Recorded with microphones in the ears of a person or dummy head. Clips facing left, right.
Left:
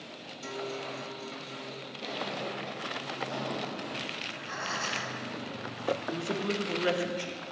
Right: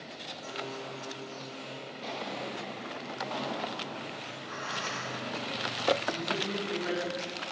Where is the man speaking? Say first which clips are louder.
Left 2 dB; 65° left (ahead or behind), 1.5 m.